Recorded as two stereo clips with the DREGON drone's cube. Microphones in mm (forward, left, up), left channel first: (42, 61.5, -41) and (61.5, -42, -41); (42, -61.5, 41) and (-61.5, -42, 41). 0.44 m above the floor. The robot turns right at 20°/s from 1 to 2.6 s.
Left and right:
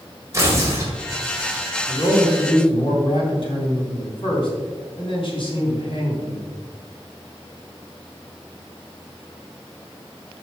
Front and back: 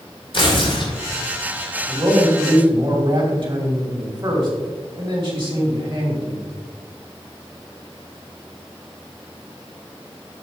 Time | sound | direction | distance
0.3 | tearing paper | 25° right | 1.9 m
1.9 | a man speaking | 115° left | 2.5 m